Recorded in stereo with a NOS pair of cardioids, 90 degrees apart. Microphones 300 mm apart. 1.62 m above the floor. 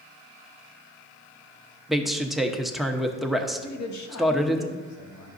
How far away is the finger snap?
I don't hear a finger snap.